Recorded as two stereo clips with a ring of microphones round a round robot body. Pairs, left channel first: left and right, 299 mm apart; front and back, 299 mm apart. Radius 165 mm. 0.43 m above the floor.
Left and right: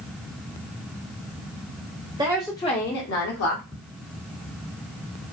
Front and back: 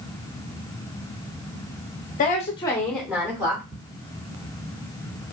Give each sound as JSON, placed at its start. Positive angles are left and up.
{"t": 2.2, "sound": "a woman speaking", "azimuth_deg": -30, "distance_m": 0.8}
{"t": 3.7, "sound": "ticking", "azimuth_deg": 135, "distance_m": 1.5}